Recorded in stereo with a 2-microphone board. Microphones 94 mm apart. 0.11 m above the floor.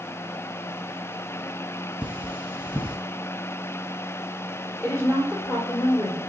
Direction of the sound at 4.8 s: 25° left (ahead or behind).